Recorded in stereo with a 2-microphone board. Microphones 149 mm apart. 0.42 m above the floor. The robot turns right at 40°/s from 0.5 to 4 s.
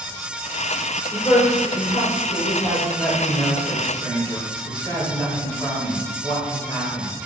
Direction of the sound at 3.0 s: 165° left.